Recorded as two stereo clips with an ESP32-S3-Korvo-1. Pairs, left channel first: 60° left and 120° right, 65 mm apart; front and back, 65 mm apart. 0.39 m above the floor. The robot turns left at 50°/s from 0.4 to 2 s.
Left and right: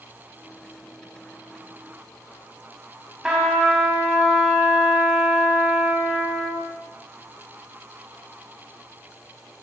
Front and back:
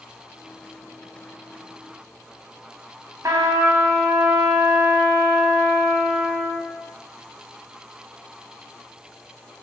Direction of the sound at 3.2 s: 155° left.